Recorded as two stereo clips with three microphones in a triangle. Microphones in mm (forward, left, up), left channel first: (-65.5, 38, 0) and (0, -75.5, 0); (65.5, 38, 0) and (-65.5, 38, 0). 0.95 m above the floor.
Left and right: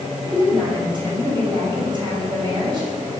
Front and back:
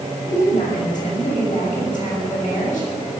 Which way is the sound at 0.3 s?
5° right.